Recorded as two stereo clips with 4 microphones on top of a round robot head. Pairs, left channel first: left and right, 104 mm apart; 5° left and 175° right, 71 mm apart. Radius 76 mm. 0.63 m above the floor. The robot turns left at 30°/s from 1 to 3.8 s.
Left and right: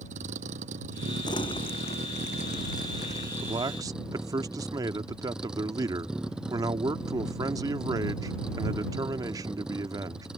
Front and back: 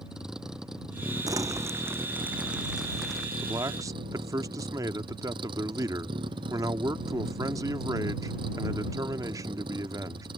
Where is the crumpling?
145° left; by 3.3 s 85° left.